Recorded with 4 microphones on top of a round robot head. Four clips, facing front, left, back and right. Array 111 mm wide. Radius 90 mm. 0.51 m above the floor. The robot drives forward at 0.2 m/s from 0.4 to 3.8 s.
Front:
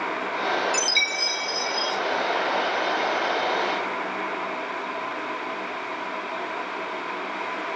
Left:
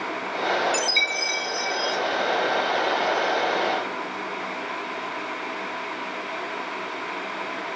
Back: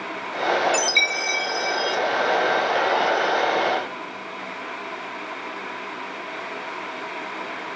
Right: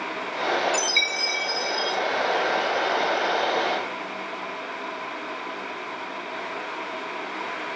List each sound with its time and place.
0.7 s a chime: 175° left, 1.5 m